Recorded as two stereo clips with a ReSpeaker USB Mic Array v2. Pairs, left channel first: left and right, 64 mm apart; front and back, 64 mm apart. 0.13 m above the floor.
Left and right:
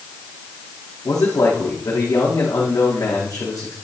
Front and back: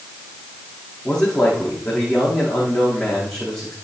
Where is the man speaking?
80° left, 7 m.